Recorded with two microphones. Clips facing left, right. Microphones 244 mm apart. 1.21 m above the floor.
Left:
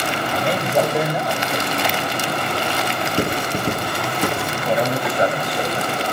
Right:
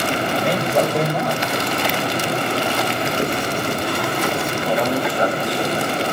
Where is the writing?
65° left (ahead or behind), 8.5 m.